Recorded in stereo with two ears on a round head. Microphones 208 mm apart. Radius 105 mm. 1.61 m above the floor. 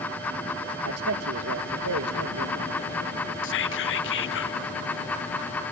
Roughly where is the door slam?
No door slam in this recording.